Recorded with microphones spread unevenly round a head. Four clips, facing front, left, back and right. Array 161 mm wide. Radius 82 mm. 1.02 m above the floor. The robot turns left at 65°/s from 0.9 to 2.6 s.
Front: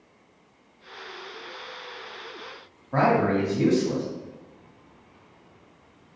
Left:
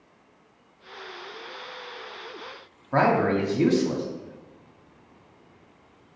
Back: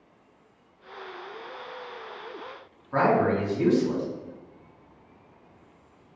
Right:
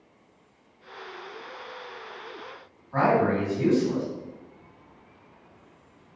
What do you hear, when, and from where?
2.9 s a man speaking: 85° left, 1.9 m